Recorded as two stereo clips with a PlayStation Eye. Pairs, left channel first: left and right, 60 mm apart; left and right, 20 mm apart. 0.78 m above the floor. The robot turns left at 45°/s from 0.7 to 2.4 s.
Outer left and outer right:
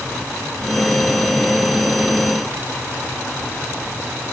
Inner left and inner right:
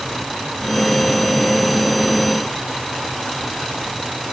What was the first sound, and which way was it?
Only background noise.